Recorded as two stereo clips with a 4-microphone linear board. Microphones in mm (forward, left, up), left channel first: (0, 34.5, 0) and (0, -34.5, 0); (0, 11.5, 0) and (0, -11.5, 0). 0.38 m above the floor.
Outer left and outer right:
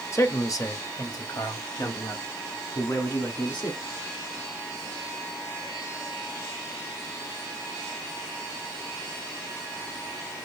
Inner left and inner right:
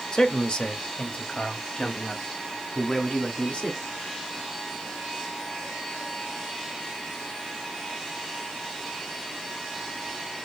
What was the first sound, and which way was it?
A man speaking, 40° left (ahead or behind).